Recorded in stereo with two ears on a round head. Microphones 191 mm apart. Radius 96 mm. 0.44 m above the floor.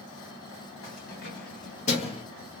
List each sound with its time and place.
0.8 s keys jangling: 50° left (ahead or behind), 1.3 m; by 2.2 s 25° left (ahead or behind), 0.7 m